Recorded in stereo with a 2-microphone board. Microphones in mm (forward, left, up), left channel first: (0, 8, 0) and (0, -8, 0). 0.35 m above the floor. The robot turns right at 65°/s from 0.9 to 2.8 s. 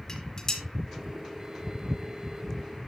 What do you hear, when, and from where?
0.1 s dishes clattering: 30° left (ahead or behind), 3.5 m